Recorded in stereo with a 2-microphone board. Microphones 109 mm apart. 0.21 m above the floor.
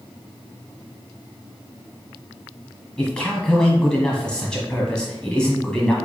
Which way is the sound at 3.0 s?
10° left (ahead or behind).